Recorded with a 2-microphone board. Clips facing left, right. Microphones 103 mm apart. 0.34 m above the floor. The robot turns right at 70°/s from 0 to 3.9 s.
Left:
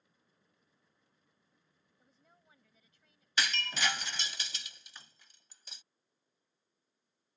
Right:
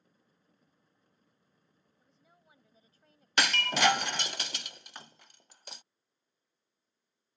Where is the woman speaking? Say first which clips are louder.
Right 1 dB; 170° left; by 4.4 s 60° right.